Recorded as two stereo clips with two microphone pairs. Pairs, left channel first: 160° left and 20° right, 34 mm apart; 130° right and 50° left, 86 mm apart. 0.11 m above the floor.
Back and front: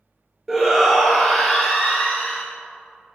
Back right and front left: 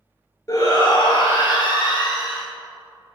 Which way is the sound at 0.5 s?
100° right.